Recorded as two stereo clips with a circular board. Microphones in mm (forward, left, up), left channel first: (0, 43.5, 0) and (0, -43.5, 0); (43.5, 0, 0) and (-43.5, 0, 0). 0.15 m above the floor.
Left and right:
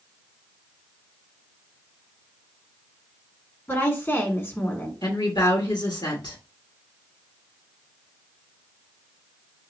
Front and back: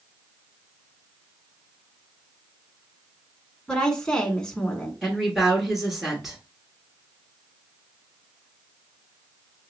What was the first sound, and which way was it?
A woman speaking, 70° left.